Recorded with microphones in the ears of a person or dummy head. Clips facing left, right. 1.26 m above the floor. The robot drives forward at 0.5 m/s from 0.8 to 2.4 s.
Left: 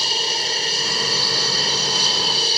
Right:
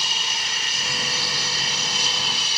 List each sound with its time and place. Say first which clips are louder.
0.0 s an aircraft: left 7 dB; 35° left (ahead or behind); by 2.6 s 40° left (ahead or behind)